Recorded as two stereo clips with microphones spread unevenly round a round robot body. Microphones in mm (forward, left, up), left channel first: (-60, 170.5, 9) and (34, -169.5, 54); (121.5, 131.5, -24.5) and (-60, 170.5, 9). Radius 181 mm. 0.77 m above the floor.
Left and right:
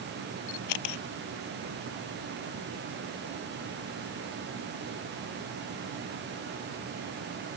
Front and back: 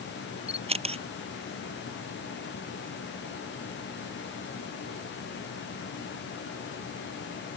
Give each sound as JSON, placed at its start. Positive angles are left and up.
{"t": 0.5, "sound": "a camera shutter", "azimuth_deg": 115}